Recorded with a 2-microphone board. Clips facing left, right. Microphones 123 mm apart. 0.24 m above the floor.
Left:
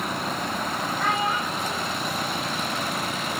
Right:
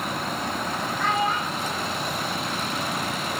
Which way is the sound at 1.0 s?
10° left (ahead or behind).